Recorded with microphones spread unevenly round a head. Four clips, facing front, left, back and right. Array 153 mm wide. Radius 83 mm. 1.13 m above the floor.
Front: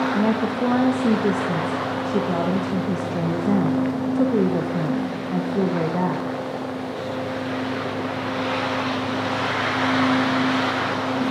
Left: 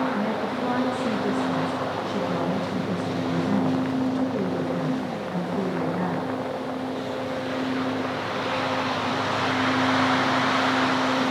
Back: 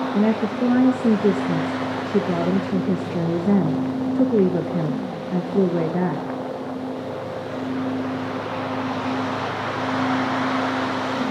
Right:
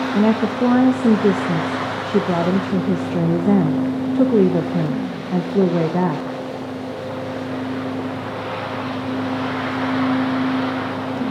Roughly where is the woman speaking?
Behind right.